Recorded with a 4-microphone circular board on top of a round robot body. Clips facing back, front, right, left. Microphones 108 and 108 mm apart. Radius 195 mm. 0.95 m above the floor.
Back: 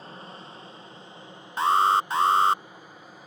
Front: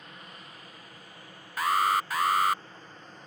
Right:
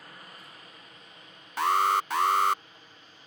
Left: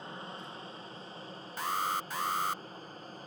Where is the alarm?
115° right.